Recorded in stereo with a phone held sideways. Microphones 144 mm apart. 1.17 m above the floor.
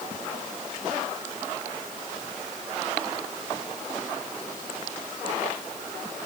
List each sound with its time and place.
Only background noise.